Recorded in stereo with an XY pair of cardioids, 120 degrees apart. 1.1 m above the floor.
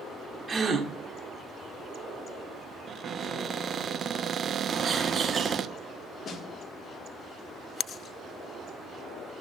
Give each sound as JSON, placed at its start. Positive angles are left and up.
{"t": 0.5, "sound": "a gasp", "azimuth_deg": -25, "distance_m": 1.6}
{"t": 2.9, "sound": "a cupboard door", "azimuth_deg": -40, "distance_m": 0.6}
{"t": 4.7, "sound": "a bird", "azimuth_deg": -30, "distance_m": 1.5}
{"t": 6.2, "sound": "a snare drum", "azimuth_deg": 45, "distance_m": 1.9}